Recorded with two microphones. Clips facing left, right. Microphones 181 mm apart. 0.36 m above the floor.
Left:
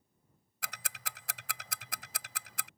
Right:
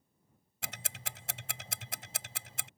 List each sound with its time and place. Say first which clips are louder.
0.6 s ticking: right 1 dB; 25° right (ahead or behind)